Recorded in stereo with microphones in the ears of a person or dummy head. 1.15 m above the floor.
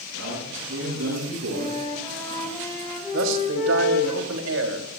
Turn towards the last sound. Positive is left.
turn(degrees=-75)  # may be behind; listen again after turning